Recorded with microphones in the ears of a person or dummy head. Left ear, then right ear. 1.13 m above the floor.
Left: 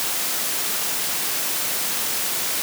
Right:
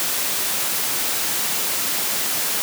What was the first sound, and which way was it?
Only background noise.